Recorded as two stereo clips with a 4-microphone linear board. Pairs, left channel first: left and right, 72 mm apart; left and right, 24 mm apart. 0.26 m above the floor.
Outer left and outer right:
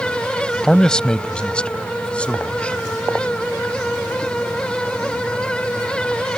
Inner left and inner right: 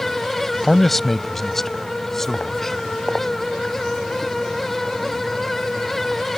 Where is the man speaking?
10° left (ahead or behind); by 2.8 s 15° left (ahead or behind).